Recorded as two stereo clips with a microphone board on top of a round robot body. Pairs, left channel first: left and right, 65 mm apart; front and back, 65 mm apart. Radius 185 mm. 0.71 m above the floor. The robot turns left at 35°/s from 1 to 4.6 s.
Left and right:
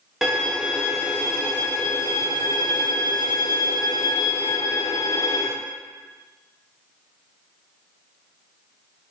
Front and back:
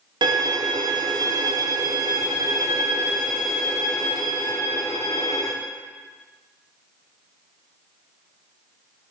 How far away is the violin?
About 0.9 m.